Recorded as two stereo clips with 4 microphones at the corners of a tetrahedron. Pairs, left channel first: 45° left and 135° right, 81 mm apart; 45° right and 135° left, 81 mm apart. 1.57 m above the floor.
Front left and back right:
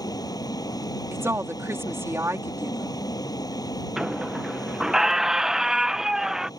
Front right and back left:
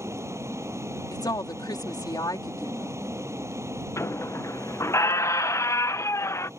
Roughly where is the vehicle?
Left.